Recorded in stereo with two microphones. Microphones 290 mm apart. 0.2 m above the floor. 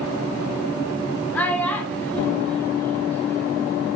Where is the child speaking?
5° left (ahead or behind), 0.6 m.